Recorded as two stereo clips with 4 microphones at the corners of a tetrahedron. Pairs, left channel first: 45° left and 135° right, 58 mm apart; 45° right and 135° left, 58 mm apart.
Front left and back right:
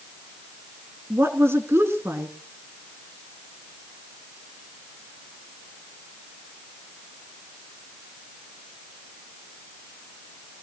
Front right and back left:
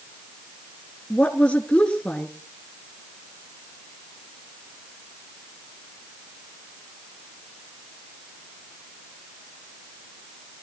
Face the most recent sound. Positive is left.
turn(degrees=-110)